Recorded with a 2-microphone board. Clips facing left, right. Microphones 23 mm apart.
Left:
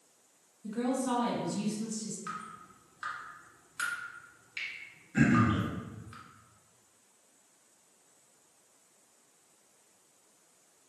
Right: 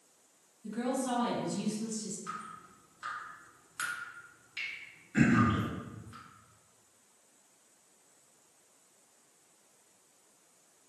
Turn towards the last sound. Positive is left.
turn(degrees=-20)  # may be behind; listen again after turning